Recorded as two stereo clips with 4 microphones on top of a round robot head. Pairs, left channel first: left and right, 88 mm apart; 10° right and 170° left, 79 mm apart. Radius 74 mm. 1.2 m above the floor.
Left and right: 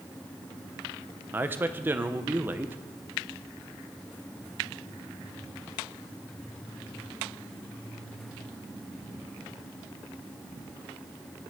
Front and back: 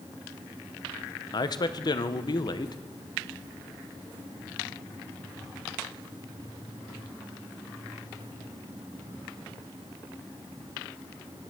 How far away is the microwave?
I don't hear a microwave.